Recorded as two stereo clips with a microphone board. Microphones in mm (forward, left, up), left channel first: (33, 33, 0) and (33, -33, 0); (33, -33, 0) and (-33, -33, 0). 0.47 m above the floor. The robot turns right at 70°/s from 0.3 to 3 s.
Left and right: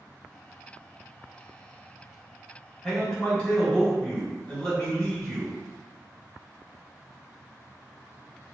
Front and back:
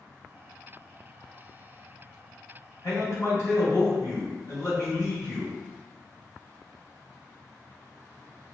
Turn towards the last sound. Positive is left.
turn(degrees=15)